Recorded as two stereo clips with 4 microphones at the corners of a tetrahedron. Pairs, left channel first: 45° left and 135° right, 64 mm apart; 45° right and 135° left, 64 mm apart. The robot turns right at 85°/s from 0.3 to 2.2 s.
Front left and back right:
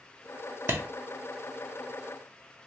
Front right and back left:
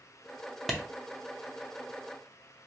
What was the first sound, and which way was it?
A clap, 135° right.